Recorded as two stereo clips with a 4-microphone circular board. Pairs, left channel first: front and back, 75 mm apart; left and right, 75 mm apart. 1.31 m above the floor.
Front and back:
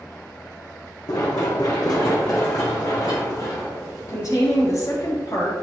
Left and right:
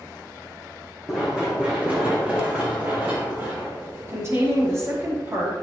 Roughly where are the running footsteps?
Ahead.